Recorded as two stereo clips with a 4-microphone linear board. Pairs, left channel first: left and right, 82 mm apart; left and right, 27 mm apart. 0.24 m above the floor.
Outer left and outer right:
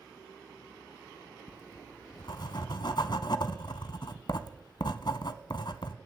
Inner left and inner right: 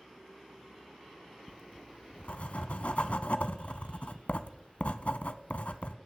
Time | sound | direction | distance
1.5 | writing | 65° left (ahead or behind) | 0.7 m